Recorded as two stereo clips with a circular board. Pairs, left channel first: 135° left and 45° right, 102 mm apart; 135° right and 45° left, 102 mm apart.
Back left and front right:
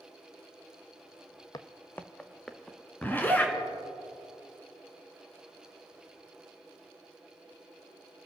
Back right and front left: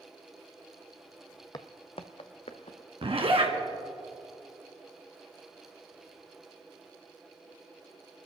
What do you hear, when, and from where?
1.5 s footsteps: straight behind, 0.6 m; by 3.7 s 130° right, 2 m
3.0 s a zipper: 65° left, 1.6 m